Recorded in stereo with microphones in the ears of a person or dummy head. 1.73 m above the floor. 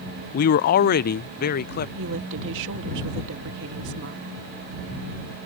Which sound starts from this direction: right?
A woman speaking, at 1.9 s.